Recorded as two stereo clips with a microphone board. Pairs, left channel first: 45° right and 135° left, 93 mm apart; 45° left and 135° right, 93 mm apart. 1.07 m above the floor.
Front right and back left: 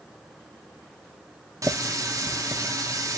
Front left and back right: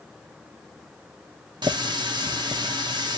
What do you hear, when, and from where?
1.6 s a running tap: 170° right, 1.0 m